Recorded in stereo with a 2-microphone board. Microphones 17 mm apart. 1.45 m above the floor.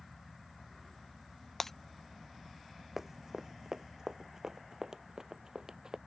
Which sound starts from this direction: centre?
Breaking glass, at 1.6 s.